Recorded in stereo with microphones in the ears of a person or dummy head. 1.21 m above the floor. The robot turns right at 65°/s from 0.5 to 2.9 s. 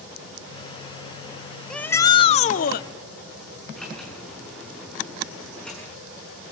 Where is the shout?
Straight ahead, 0.7 m; by 2.9 s 75° left, 0.7 m.